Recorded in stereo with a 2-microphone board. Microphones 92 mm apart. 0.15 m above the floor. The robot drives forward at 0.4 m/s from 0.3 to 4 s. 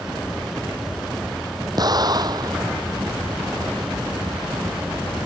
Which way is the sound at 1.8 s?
45° right (ahead or behind).